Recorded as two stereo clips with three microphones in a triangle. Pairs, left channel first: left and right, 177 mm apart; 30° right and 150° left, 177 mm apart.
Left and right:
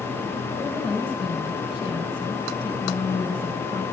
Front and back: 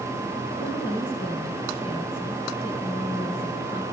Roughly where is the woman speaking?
Ahead left.